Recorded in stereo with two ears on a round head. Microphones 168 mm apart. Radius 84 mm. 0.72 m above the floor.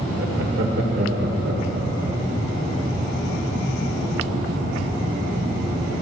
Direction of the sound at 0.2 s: 65° right (ahead or behind).